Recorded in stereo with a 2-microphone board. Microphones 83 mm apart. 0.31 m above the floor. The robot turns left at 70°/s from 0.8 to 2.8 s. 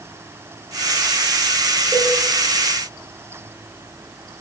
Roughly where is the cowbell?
Left.